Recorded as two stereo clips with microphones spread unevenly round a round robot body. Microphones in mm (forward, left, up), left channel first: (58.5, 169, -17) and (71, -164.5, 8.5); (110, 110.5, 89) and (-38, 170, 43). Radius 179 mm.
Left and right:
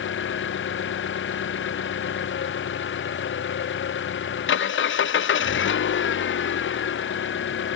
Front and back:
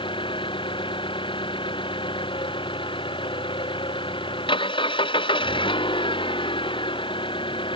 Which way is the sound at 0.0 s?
35° left.